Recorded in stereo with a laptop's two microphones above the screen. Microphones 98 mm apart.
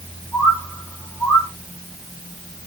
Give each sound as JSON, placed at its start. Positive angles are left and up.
{"t": 0.3, "sound": "a bird", "side_deg": 30, "distance_m": 6.0}